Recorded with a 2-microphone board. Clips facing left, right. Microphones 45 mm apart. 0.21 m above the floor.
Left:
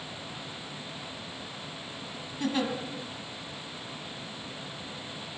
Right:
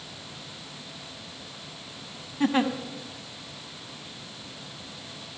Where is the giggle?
35° right (ahead or behind), 1.9 m.